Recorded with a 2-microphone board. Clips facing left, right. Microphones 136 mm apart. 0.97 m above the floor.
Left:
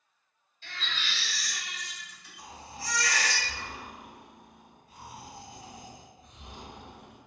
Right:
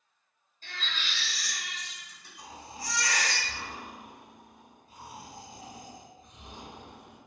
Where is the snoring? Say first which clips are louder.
Even; 20° right (ahead or behind), 1.5 m.